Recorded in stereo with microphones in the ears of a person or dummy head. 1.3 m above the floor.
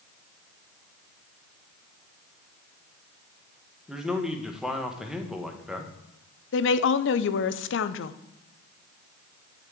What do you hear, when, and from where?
3.9 s a man speaking: 5° right (ahead or behind), 1.3 m
6.5 s a woman speaking: 60° left (ahead or behind), 0.6 m